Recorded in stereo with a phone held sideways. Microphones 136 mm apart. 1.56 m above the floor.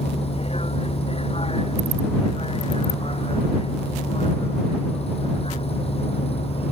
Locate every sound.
0.0 s a vehicle: 50° left (ahead or behind)